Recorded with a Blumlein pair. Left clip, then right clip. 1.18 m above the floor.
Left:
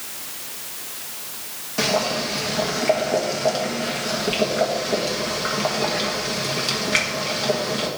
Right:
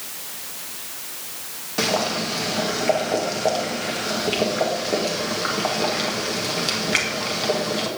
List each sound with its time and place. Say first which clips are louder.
1.8 s boiling: left 1 dB; 5° right, 1.7 m